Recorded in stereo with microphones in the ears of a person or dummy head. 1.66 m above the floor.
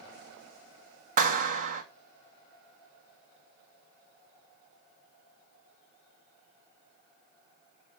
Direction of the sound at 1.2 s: 40° right (ahead or behind).